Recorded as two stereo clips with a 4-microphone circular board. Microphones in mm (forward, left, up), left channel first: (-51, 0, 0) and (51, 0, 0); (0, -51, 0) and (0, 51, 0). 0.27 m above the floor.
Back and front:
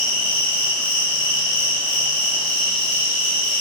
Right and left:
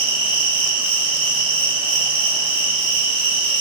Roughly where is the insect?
Behind.